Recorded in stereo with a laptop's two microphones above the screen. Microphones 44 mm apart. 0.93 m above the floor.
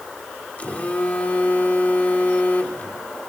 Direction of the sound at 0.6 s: 35° left (ahead or behind).